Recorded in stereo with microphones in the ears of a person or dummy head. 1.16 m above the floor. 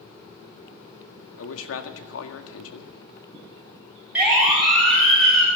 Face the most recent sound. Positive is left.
turn(degrees=5)  # may be behind; listen again after turning